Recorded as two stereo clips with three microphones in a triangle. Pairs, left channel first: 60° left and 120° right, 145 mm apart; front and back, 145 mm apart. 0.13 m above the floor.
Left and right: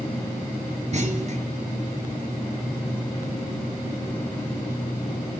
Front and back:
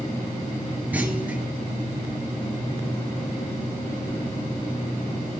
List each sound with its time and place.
0.9 s a clunk: 105° right, 2.5 m